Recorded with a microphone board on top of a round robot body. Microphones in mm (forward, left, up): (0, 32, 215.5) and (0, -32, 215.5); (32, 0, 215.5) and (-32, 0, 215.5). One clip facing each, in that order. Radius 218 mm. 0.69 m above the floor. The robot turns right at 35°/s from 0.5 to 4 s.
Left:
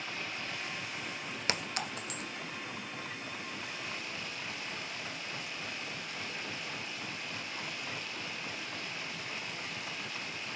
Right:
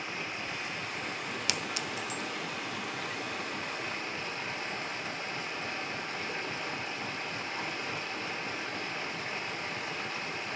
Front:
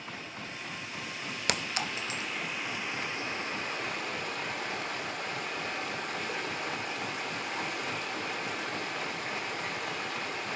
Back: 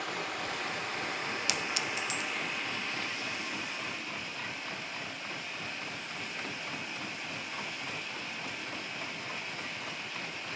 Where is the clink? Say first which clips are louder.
Left 3 dB, front 1 dB; 35° left, 0.8 m; by 2.2 s 65° left, 0.8 m.